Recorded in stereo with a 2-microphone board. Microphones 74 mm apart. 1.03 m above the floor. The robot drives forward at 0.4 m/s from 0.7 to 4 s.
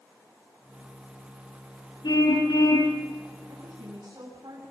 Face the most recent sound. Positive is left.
turn(degrees=-70)  # may be behind; listen again after turning